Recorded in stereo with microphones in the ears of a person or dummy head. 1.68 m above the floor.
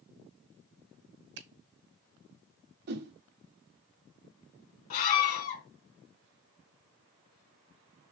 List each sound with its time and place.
1.4 s a finger snap: 60° right (ahead or behind), 1.2 m
2.9 s a whoosh: 50° right (ahead or behind), 1.0 m
4.9 s a scream: 45° left (ahead or behind), 2 m